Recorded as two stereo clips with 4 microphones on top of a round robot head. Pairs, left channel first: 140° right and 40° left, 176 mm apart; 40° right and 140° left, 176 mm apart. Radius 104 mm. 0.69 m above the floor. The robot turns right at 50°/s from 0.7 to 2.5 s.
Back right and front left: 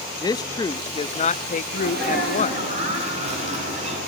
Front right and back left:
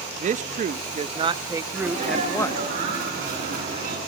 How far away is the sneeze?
About 9.5 m.